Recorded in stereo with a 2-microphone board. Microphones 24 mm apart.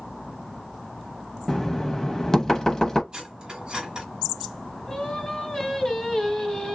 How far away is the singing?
About 1.4 m.